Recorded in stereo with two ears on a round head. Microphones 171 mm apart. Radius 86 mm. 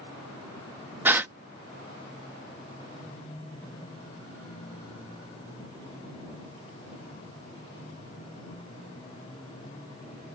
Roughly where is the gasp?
Centre.